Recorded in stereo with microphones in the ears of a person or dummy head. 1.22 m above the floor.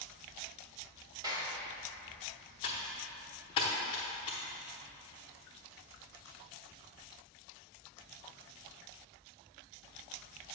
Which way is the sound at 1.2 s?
20° right (ahead or behind).